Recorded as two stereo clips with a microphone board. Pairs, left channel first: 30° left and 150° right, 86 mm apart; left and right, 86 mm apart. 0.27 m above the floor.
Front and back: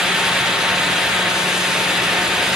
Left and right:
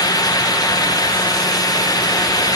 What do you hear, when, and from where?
Only background noise.